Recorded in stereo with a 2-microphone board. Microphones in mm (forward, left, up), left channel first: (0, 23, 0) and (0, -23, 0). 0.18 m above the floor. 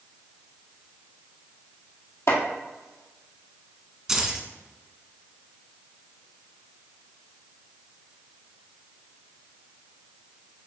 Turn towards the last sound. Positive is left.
turn(degrees=-10)  # may be behind; listen again after turning